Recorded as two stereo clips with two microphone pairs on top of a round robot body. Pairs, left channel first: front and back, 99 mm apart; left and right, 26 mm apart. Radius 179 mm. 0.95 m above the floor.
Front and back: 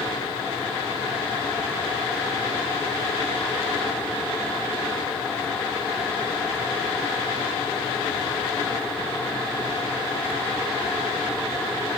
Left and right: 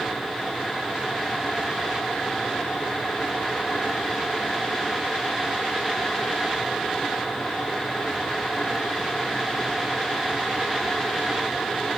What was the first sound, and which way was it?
Only background noise.